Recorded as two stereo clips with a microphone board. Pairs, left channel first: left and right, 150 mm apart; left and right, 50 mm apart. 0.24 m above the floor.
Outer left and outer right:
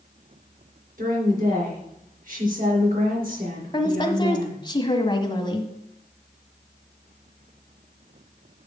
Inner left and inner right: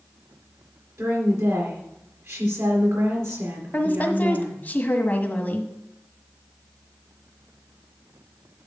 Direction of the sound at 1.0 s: 70° right (ahead or behind).